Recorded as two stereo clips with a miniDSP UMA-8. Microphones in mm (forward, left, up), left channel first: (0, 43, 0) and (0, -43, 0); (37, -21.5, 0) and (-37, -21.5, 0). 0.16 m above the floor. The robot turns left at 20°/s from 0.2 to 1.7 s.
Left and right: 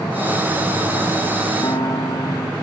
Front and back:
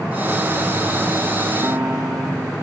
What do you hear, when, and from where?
1.6 s a piano: 125° left